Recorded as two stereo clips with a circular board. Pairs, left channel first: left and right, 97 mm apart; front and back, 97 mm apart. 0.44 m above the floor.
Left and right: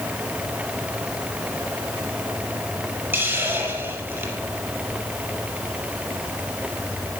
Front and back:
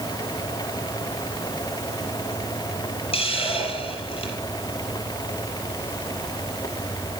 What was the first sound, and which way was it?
A hiss, 20° right.